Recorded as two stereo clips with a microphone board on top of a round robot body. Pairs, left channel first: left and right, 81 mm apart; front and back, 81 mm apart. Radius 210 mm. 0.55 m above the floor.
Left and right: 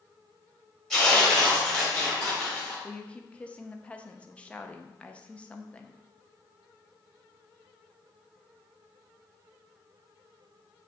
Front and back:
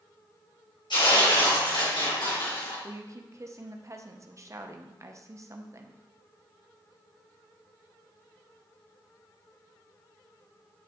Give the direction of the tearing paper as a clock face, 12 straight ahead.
12 o'clock.